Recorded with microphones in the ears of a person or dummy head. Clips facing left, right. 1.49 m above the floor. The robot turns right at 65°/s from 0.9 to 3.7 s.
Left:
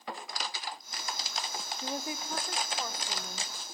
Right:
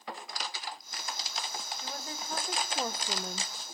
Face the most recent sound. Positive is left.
turn(degrees=-100)